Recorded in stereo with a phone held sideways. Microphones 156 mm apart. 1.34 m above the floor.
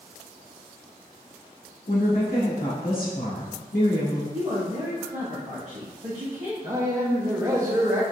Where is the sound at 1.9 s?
80° left, 1.4 m.